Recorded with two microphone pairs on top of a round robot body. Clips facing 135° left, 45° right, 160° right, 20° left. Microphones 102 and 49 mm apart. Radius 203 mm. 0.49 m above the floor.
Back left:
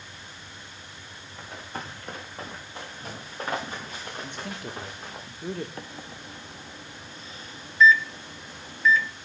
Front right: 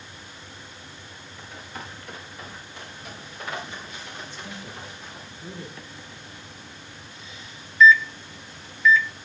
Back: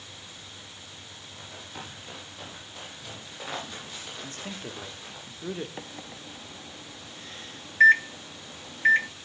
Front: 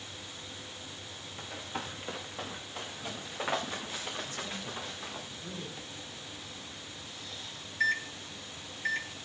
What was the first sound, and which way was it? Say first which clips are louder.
Running footsteps: back left 2 dB, front 3 dB; 75° left.